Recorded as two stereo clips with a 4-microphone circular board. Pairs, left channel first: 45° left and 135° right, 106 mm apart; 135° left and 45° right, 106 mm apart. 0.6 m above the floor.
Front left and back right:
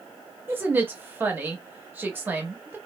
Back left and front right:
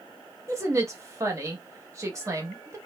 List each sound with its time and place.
0.5 s a woman speaking: 80° right, 0.8 m